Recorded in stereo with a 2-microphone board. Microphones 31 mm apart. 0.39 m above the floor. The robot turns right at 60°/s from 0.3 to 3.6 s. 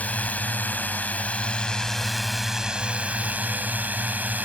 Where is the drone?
65° left; by 4.5 s 95° right.